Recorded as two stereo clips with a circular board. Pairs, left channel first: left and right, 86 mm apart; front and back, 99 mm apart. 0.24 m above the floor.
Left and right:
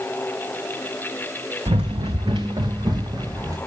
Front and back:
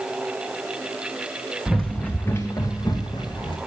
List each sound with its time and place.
1.7 s running footsteps: 95° right, 1.3 m; by 3.6 s 40° right, 2.5 m